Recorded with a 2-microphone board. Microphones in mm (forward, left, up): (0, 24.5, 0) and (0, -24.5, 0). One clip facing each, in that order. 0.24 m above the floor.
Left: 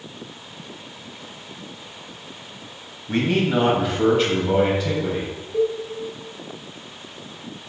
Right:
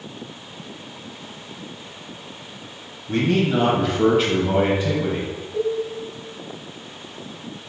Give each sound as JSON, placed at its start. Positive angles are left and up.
{"t": 3.1, "sound": "a man speaking", "side_deg": 25, "distance_m": 1.1}
{"t": 5.5, "sound": "a cowbell", "side_deg": 40, "distance_m": 1.0}